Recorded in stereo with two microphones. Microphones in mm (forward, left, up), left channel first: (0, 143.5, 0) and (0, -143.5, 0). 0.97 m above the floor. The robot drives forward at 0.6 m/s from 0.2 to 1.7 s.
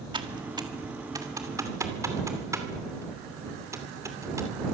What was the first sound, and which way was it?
Typing on a keyboard, 15° right (ahead or behind).